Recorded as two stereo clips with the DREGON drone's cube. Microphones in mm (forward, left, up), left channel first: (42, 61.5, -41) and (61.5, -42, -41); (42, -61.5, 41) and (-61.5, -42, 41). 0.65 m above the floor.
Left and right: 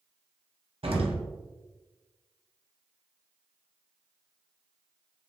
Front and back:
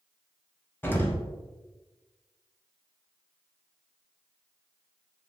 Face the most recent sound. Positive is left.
turn(degrees=-75)